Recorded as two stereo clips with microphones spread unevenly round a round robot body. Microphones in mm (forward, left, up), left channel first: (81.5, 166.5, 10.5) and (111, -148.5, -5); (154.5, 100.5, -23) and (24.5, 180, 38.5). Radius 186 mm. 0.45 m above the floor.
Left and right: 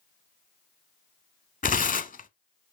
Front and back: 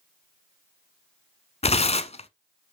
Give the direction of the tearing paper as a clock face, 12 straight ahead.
11 o'clock.